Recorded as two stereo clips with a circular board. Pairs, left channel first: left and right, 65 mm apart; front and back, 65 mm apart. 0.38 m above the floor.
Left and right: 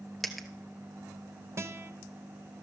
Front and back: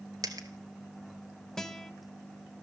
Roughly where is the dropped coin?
Behind.